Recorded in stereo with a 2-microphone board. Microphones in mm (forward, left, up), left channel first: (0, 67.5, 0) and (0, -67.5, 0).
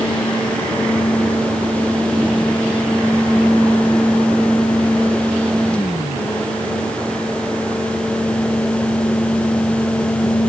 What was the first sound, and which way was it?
Only background noise.